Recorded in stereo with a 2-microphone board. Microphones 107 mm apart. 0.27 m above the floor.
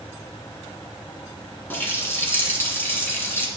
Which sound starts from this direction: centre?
A running tap, at 1.7 s.